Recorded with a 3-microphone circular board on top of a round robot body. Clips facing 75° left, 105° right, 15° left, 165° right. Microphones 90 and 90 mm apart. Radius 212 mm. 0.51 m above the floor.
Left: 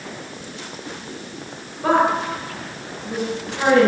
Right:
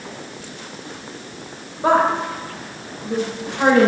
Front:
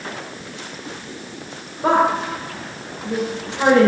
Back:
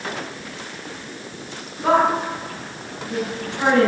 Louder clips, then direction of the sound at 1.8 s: Right 1 dB, front 1 dB; 40° right.